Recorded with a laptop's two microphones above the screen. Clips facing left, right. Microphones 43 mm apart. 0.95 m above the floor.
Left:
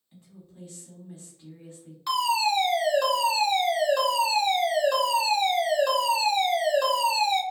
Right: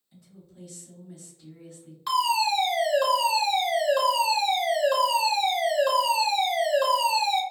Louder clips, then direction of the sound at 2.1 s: Right 1 dB; 5° right (ahead or behind).